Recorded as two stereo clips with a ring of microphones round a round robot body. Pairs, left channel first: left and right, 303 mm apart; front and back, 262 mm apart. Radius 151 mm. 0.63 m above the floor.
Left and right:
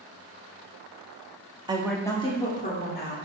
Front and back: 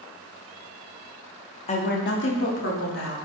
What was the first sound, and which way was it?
A woman speaking, 35° right.